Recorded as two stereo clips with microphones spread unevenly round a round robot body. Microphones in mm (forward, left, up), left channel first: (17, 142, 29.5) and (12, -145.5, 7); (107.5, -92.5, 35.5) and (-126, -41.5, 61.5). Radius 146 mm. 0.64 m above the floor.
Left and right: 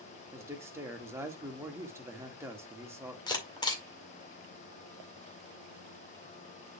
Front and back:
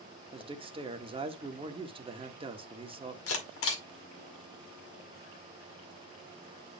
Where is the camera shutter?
10° left, 2.0 m.